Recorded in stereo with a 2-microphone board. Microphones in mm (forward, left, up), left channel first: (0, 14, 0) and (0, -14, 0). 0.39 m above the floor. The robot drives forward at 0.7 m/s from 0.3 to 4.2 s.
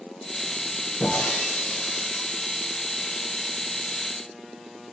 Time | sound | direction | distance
1.0 | breaking glass | 75° left (ahead or behind) | 5.5 m